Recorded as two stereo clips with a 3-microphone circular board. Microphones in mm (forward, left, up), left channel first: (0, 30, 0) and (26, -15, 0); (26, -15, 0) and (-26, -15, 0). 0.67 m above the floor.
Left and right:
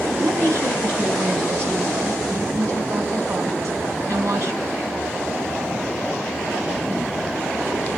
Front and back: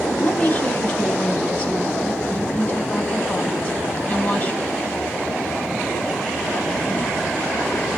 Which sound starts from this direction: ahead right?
A woman speaking, at 0.2 s.